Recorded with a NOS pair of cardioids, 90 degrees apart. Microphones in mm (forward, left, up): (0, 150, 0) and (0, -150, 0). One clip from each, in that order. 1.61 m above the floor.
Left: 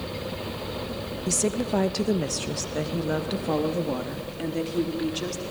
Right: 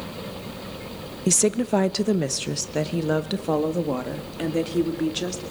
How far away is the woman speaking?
About 1.2 m.